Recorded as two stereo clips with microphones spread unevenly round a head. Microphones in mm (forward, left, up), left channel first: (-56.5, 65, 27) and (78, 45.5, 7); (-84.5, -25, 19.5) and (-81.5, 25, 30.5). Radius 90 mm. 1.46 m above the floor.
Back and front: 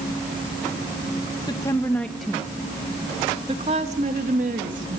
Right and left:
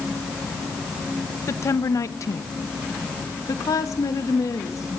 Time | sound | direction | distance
1.5 | a woman speaking | 120° right | 1.9 m